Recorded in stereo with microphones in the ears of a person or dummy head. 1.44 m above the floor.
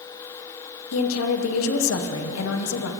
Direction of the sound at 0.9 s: 75° left (ahead or behind).